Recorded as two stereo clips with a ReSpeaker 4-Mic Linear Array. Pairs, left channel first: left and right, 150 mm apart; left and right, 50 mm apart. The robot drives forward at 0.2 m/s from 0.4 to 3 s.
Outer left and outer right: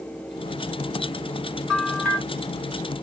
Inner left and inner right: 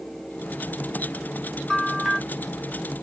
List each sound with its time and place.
1.7 s a bell: 5° left (ahead or behind), 1.4 m